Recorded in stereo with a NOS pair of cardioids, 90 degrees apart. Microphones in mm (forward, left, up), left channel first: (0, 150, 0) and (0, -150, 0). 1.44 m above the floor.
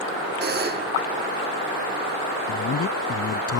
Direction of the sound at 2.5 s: 50° left.